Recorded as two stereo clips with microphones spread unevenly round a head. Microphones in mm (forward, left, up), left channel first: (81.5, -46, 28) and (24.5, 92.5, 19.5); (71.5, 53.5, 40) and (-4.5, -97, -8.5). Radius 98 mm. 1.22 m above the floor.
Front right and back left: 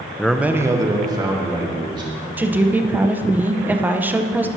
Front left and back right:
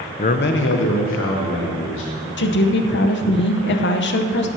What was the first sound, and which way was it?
A man speaking, 10° left.